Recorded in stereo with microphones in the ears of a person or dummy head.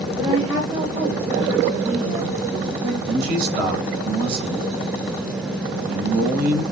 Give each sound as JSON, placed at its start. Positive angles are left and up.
{"t": 0.2, "sound": "a woman speaking", "side_deg": -25, "distance_m": 3.5}
{"t": 3.1, "sound": "a man speaking", "side_deg": -55, "distance_m": 7.0}